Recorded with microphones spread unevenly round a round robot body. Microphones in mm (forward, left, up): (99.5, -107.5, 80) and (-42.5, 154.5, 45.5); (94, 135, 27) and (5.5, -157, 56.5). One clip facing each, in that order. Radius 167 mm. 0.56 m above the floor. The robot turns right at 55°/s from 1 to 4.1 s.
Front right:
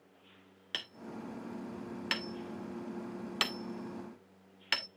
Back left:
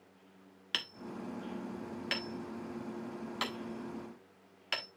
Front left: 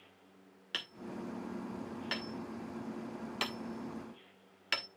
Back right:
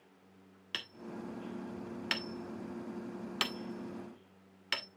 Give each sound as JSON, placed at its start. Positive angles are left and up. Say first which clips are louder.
{"t": 0.7, "sound": "hammering", "louder": "back left 1 dB, front left 1 dB", "azimuth_deg": 170, "distance_m": 1.1}